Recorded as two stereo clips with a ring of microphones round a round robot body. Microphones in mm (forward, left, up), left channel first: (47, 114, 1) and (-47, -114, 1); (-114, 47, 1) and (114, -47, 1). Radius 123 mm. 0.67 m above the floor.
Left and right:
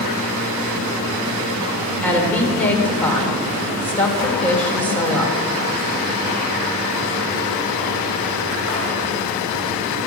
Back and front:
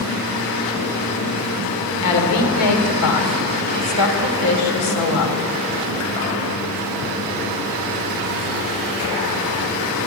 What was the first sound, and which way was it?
A woman speaking, 150° left.